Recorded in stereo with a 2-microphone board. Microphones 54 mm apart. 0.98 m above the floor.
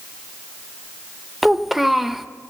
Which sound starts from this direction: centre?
A child speaking, at 1.4 s.